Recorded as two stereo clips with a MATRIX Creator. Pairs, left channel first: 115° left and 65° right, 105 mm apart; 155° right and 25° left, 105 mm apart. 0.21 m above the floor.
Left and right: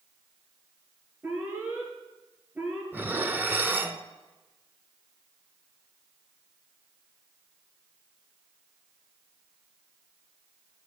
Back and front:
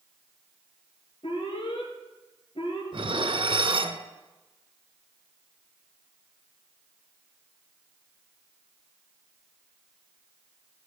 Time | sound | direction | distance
1.2 | an alarm | 135° right | 4 m
2.9 | dishes clattering | straight ahead | 1.3 m